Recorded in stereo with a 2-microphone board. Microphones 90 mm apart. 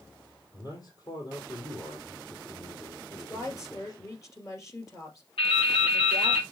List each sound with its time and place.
0.5 s a man speaking: 45° left (ahead or behind), 3 m
3.1 s a woman speaking: 35° left (ahead or behind), 3 m
5.4 s dripping: 85° left, 5 m